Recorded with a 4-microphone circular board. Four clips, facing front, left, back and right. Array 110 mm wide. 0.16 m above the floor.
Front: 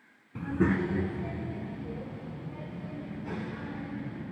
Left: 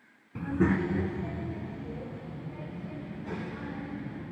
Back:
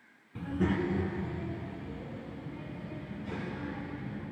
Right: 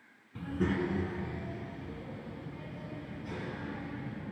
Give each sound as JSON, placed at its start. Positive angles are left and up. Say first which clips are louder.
{"t": 0.3, "sound": "a child speaking", "louder": "left 5 dB, front 3 dB", "azimuth_deg": 55, "distance_m": 0.8}